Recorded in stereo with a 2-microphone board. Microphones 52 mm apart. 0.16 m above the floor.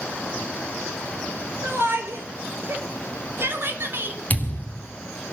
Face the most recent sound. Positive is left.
turn(degrees=35)  # may be behind; listen again after turning